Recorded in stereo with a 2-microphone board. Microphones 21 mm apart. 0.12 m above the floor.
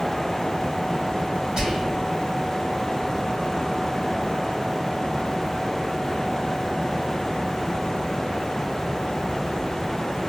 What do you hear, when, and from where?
1.6 s whispering: 25° right (ahead or behind), 1.1 m